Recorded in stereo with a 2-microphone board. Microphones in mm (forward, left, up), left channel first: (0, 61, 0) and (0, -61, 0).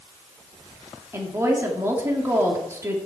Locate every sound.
1.1 s a woman speaking: 20° right (ahead or behind), 1.8 m